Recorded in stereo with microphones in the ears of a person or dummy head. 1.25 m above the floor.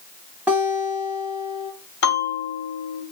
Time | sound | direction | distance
0.5 | a guitar | 10° right (ahead or behind) | 0.7 m
2.0 | a bell | 80° left | 1.1 m